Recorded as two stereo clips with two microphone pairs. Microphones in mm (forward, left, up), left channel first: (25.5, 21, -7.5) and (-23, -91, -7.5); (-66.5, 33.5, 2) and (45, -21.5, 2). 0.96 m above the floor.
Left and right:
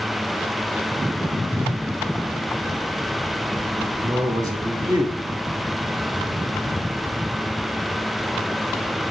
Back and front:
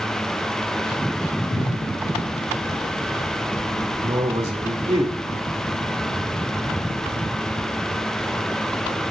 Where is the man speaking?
60° right, 1.9 m.